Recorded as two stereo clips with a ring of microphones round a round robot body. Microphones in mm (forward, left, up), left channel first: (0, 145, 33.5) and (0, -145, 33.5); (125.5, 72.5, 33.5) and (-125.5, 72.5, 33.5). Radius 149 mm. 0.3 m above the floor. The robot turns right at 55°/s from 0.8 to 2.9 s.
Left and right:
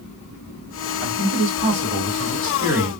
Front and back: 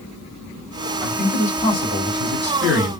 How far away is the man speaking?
About 1.5 m.